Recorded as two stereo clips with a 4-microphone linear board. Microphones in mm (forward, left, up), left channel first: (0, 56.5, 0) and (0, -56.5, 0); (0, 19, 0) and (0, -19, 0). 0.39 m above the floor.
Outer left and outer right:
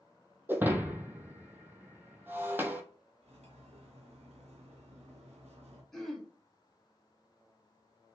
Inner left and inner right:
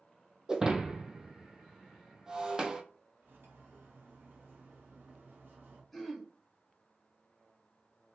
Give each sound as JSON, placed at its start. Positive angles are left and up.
{"t": 0.5, "sound": "breaking glass", "side_deg": -20, "distance_m": 0.8}
{"t": 3.2, "sound": "cutlery clinking", "side_deg": -75, "distance_m": 2.5}
{"t": 5.9, "sound": "throat clearing", "side_deg": 0, "distance_m": 1.2}